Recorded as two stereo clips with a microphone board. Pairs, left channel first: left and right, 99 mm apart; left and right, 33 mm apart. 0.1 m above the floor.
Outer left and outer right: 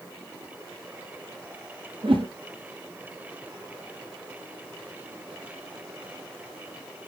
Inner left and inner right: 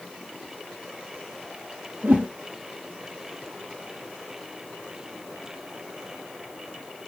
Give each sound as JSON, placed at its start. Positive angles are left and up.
{"t": 2.0, "sound": "a whoosh", "side_deg": -55, "distance_m": 2.5}